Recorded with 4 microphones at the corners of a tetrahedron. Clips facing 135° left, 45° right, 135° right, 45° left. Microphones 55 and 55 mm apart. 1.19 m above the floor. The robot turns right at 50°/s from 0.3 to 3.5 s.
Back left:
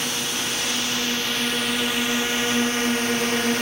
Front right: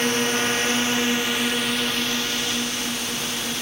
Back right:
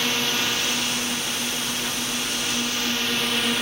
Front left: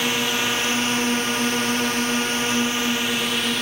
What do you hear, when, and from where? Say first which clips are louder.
0.0 s a drone: front right 6 dB, front left 2 dB; 25° right; by 3.6 s 135° left